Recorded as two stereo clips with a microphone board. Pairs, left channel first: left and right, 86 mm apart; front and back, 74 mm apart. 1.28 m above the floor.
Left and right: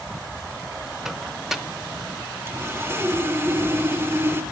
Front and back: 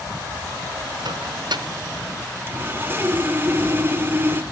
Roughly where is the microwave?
Behind.